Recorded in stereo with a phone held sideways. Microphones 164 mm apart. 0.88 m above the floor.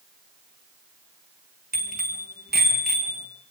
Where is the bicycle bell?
70° right (ahead or behind), 7 m; by 3.3 s 80° right, 5 m.